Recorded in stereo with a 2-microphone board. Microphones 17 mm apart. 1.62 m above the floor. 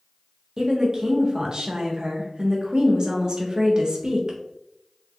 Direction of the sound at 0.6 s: 55° right (ahead or behind).